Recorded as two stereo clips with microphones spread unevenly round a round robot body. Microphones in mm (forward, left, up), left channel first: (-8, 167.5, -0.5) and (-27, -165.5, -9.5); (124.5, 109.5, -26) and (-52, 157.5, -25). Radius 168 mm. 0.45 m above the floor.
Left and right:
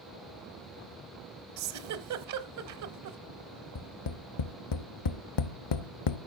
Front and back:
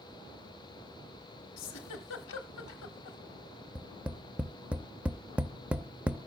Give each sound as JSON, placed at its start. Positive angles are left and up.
{"t": 1.6, "sound": "a giggle", "azimuth_deg": -50, "distance_m": 0.9}
{"t": 3.8, "sound": "tapping", "azimuth_deg": 80, "distance_m": 0.6}